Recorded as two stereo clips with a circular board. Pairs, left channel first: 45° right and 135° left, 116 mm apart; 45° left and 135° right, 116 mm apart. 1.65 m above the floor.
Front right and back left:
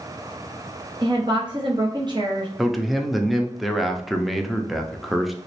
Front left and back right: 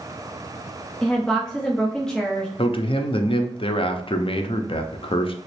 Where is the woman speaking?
125° left, 0.7 m.